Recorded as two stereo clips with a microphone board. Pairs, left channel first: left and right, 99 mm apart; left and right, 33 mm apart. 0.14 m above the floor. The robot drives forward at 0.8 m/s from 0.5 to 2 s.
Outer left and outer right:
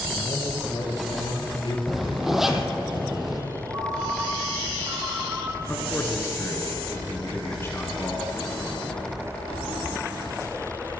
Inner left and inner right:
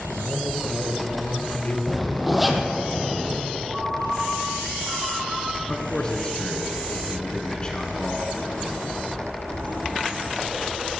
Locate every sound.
0.1 s a man speaking: 55° left (ahead or behind), 3.5 m; by 1.8 s 60° left (ahead or behind), 3 m
1.9 s a zipper: 5° right (ahead or behind), 1.7 m
3.7 s a ringtone: 35° right (ahead or behind), 3.5 m
5.7 s a man speaking: 25° left (ahead or behind), 2 m